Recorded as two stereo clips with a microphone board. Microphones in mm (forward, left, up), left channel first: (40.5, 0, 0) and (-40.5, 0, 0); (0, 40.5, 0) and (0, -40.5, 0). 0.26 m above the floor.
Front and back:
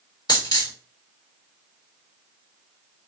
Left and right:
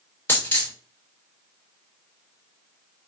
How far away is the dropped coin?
About 1.2 m.